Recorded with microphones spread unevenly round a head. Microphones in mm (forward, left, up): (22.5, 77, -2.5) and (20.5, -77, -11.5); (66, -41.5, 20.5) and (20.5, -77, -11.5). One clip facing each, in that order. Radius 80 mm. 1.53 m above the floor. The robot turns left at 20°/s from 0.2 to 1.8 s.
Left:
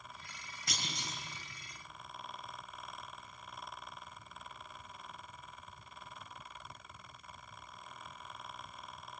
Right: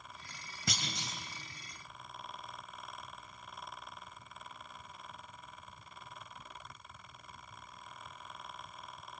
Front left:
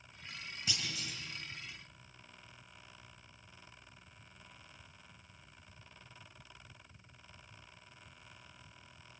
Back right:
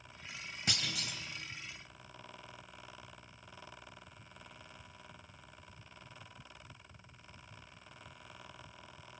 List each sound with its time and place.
0.7 s a clunk: 100° right, 2.5 m; by 1.2 s 110° right, 2.5 m